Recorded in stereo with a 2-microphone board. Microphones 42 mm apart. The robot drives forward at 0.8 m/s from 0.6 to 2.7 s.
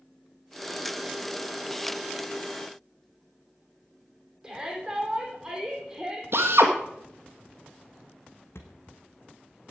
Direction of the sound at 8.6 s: 80° left.